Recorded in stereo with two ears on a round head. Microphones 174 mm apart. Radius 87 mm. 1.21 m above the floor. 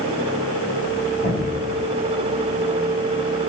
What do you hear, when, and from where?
1.2 s an explosion: 65° left (ahead or behind), 4.5 m